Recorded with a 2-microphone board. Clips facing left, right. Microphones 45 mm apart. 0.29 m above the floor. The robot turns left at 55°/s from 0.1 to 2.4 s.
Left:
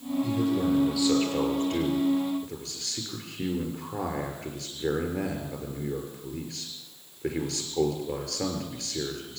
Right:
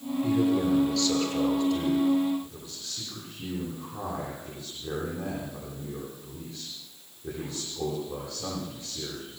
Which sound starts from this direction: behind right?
A man speaking, at 0.2 s.